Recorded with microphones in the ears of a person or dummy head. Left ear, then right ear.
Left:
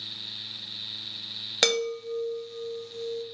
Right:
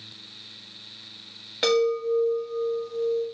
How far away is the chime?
About 1.1 m.